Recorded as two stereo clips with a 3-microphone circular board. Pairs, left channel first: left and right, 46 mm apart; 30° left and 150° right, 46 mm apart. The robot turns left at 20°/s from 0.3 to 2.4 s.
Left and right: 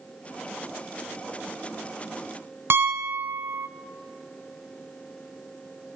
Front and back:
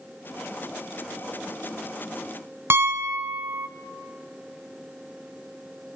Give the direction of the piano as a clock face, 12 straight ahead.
4 o'clock.